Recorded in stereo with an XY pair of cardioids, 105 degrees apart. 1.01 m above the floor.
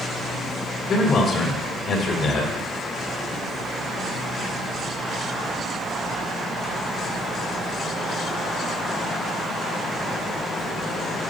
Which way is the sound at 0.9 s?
65° left.